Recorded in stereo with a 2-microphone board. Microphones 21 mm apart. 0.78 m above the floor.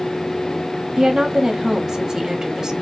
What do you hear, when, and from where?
1.0 s a woman speaking: 40° right (ahead or behind), 1.0 m